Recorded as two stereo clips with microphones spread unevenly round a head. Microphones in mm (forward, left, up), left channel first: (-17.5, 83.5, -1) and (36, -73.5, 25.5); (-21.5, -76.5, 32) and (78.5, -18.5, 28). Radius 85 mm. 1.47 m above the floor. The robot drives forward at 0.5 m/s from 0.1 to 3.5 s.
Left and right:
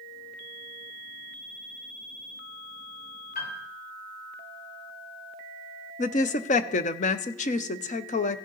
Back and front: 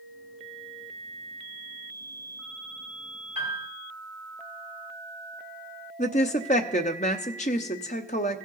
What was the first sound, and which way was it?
A piano, 155° left.